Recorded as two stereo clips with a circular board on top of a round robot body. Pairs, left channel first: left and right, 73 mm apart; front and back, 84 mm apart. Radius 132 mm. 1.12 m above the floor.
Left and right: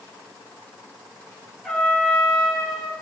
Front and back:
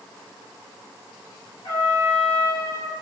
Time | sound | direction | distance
1.6 | a trumpet | 5° left | 4 m